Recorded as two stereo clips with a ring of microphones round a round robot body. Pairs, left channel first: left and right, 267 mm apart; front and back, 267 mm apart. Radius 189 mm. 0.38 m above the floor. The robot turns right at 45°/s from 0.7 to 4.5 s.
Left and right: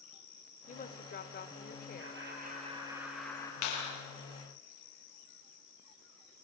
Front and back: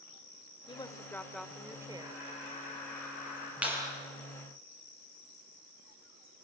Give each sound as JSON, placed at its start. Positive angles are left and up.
{"t": 0.7, "sound": "a woman speaking", "azimuth_deg": 60, "distance_m": 1.5}
{"t": 2.0, "sound": "laughter", "azimuth_deg": -55, "distance_m": 8.5}
{"t": 3.6, "sound": "a clap", "azimuth_deg": 95, "distance_m": 6.5}